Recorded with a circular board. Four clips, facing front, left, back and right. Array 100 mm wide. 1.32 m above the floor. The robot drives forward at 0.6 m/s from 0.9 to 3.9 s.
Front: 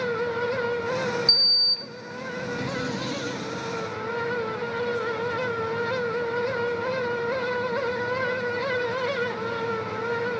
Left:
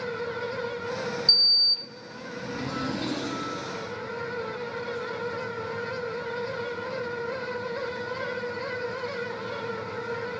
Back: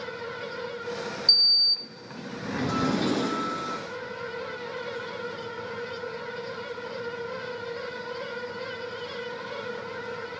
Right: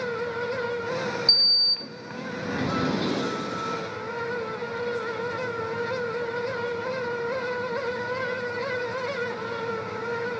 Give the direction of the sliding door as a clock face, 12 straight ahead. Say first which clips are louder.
Right 2 dB, front 5 dB; 2 o'clock.